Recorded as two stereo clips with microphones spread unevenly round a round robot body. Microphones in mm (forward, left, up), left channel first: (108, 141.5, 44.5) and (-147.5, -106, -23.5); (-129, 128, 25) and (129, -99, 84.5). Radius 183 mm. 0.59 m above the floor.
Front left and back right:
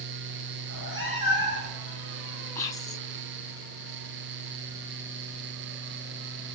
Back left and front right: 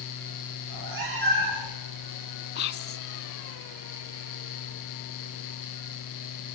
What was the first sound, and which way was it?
A cat meowing, 75° right.